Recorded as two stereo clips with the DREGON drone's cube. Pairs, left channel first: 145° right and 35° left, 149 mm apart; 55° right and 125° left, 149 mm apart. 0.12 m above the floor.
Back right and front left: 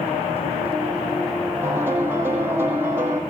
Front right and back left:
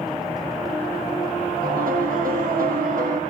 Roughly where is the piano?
Left.